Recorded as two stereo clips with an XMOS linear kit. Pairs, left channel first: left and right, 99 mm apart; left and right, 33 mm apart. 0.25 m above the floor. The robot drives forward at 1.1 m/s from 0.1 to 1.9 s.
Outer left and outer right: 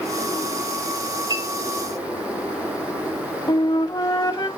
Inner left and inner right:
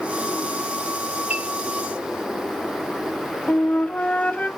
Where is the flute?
45° left (ahead or behind), 1.1 m.